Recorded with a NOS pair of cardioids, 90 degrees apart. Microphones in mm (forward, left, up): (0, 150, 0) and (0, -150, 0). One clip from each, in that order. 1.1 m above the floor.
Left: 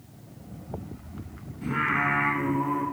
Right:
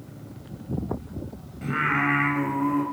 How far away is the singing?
About 3.5 m.